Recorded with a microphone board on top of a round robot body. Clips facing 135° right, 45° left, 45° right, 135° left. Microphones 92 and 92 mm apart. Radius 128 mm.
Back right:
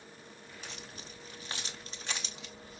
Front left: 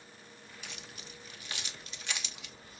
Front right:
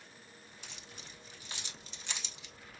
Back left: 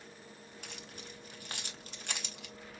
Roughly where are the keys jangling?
Behind.